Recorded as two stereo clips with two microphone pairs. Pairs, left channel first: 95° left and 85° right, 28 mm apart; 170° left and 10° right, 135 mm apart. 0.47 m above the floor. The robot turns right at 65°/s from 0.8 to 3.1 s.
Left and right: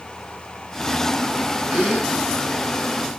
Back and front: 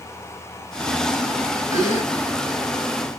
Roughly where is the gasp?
Right.